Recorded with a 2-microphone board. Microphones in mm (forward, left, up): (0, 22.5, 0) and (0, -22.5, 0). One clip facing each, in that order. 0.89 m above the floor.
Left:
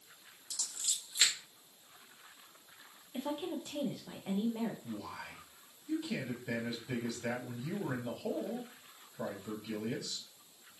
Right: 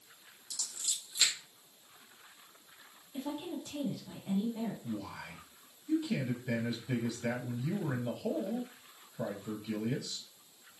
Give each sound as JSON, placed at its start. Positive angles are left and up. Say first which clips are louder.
{"t": 0.5, "sound": "scissors", "louder": "even", "side_deg": 35, "distance_m": 1.3}
{"t": 3.1, "sound": "a woman speaking", "louder": "left 1 dB", "side_deg": 35, "distance_m": 0.6}
{"t": 4.8, "sound": "a man speaking", "louder": "right 2 dB", "side_deg": -5, "distance_m": 0.7}